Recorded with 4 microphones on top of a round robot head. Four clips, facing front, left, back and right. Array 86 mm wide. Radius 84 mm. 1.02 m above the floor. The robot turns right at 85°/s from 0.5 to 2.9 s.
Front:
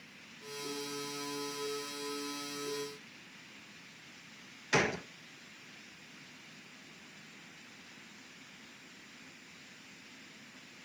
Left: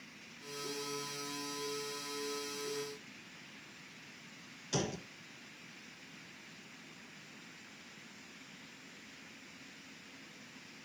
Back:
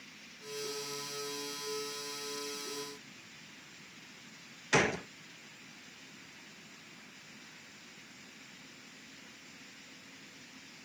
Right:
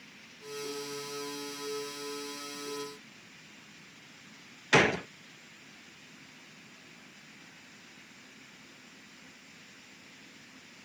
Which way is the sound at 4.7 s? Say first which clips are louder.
Right 13 dB, back 2 dB; 95° right.